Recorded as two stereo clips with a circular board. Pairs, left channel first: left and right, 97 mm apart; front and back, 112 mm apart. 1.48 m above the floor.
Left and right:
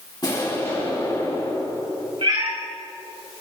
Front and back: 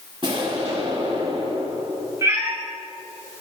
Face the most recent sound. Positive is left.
turn(degrees=-115)